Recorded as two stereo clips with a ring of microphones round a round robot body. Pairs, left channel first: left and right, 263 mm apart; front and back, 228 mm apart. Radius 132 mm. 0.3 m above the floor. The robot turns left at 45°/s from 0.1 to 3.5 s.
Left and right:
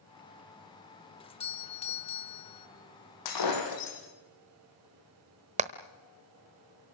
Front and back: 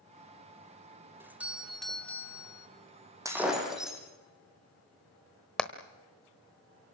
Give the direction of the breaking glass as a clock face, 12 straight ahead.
9 o'clock.